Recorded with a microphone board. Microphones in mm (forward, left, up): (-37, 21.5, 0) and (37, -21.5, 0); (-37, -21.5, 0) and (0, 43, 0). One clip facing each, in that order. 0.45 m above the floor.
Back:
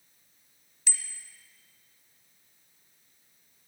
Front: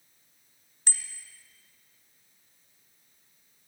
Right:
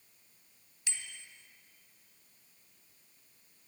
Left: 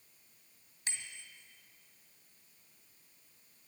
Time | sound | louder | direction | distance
0.9 | a bicycle bell | front 1 dB, left 2 dB | 15° left | 2 m